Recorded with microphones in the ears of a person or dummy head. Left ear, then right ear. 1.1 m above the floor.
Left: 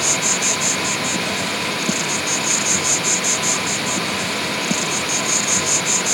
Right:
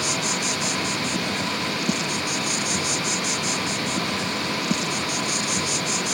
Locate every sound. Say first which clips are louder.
0.0 s an insect: left 5 dB; 15° left (ahead or behind)